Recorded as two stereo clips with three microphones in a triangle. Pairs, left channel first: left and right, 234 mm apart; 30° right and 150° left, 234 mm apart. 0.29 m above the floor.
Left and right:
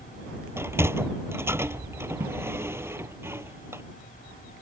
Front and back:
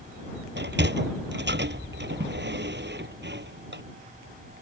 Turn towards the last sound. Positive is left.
turn(degrees=-170)